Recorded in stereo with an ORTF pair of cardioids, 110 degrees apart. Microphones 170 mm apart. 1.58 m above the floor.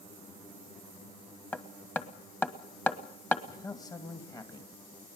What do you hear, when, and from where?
1.5 s hammering: 10° left, 1.5 m
3.5 s a man speaking: 20° left, 2.0 m